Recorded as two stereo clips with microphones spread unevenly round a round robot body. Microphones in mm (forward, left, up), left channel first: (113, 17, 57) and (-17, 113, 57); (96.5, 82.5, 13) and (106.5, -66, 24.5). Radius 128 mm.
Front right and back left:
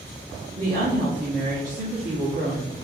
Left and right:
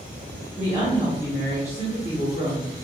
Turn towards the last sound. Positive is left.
turn(degrees=160)